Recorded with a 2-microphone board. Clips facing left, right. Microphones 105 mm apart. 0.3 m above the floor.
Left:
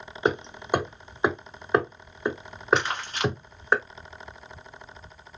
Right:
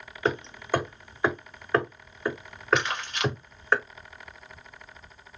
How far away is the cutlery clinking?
No cutlery clinking in this recording.